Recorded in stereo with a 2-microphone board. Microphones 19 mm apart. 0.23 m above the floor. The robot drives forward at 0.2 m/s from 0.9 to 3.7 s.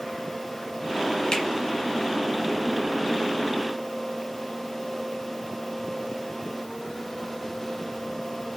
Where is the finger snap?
40° left (ahead or behind), 1.1 m.